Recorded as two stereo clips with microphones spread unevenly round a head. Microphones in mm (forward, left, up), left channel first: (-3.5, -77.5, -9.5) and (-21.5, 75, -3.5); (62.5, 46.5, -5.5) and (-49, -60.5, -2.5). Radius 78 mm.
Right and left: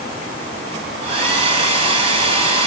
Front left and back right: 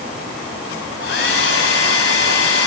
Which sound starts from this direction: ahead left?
A hair dryer, at 1.0 s.